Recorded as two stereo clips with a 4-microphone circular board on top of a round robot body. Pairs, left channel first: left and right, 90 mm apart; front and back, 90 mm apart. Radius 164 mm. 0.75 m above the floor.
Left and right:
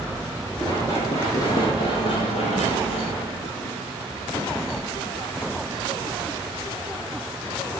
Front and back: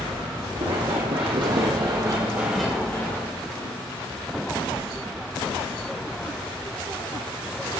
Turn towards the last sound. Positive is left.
turn(degrees=15)